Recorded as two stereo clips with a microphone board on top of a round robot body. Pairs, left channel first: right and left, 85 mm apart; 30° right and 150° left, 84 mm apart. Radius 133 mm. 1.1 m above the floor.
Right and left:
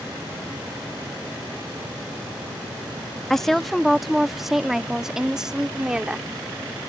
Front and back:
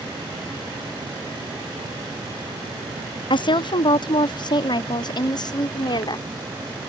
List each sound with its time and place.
3.3 s a woman speaking: 5° right; by 6.2 s 10° left